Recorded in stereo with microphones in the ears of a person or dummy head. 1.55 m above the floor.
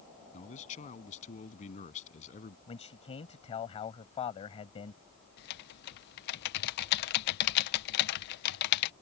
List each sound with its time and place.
0.3 s a man speaking: 40° left (ahead or behind)
2.7 s a man speaking: 35° left (ahead or behind)
5.4 s typing on a keyboard: 55° left (ahead or behind)